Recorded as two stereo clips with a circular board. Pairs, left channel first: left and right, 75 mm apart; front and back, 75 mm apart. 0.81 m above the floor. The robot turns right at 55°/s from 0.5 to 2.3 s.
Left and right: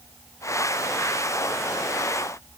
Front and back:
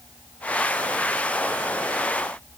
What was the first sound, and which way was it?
Only background noise.